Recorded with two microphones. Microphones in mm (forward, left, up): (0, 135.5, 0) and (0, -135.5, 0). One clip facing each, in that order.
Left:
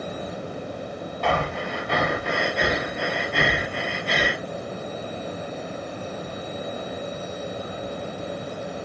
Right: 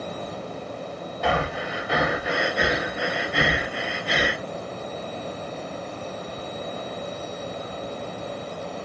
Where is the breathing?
5° right (ahead or behind), 0.5 m.